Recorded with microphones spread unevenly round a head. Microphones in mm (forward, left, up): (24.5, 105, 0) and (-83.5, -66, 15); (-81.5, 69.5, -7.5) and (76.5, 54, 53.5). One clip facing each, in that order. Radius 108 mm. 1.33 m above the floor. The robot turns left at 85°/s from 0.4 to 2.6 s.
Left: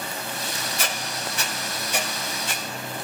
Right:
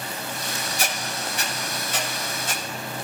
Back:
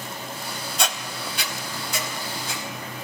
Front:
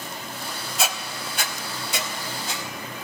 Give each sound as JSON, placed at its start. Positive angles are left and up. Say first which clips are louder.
{"t": 0.8, "sound": "a squeak", "louder": "right 1 dB, front 1 dB", "azimuth_deg": 75, "distance_m": 0.6}